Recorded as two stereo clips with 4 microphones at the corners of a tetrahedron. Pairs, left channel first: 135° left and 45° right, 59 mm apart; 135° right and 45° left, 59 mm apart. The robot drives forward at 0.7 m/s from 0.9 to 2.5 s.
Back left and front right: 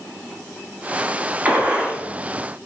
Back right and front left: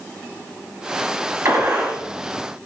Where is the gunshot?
10° left, 1.1 m; by 2.0 s 20° left, 0.8 m.